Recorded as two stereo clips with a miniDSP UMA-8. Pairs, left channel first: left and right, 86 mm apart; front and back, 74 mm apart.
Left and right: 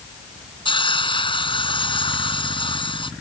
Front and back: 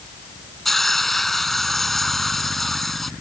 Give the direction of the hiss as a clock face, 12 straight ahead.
9 o'clock.